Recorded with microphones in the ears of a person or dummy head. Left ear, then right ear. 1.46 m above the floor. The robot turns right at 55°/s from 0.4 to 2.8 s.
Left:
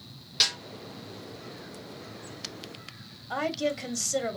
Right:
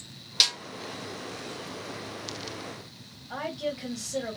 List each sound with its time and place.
0.4 s a snare drum: 25° right (ahead or behind), 0.9 m; by 0.6 s 15° right (ahead or behind), 0.9 m
3.3 s a woman speaking: 85° left, 1.7 m